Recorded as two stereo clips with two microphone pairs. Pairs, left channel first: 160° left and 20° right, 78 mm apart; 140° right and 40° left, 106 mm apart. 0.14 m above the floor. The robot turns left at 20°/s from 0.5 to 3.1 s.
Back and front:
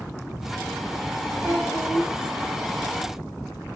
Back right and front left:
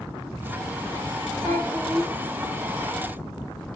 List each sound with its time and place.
1.4 s a child speaking: 85° right, 3 m; by 2.1 s 95° right, 3 m